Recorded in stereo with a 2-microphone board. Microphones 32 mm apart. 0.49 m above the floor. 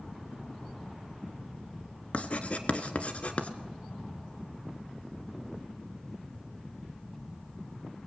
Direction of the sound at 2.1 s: 45° left (ahead or behind).